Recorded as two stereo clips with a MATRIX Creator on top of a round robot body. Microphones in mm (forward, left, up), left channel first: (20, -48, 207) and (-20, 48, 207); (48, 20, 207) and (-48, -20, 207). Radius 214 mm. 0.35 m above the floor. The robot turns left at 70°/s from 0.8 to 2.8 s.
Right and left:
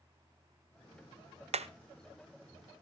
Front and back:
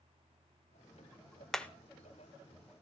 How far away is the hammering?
About 0.7 m.